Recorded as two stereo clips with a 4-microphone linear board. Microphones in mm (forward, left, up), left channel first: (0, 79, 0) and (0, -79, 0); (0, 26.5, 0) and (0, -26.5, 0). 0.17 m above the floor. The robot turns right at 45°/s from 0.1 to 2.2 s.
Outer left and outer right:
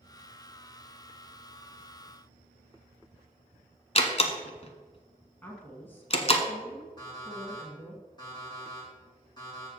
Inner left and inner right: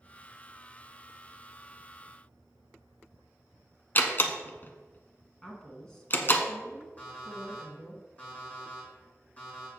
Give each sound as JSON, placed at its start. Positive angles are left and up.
{"t": 4.0, "sound": "a door slam", "side_deg": 40, "distance_m": 0.9}
{"t": 5.4, "sound": "a woman speaking", "side_deg": 15, "distance_m": 1.4}
{"t": 7.0, "sound": "an alarm clock", "side_deg": 25, "distance_m": 4.0}